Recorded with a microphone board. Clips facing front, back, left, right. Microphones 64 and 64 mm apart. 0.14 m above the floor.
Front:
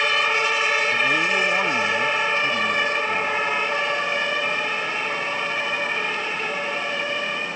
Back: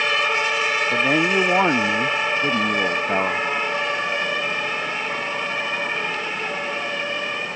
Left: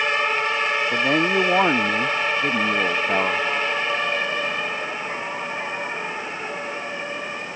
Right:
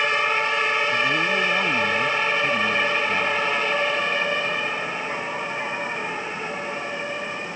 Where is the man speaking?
125° left; by 3.5 s 135° left.